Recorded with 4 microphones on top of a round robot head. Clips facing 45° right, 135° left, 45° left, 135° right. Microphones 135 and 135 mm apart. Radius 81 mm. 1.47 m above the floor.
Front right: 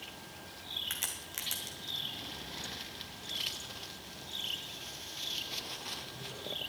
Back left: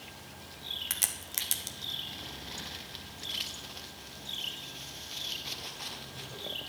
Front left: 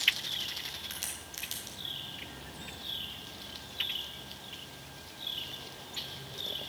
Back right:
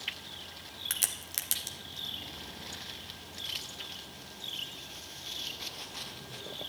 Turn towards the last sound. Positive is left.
turn(degrees=-170)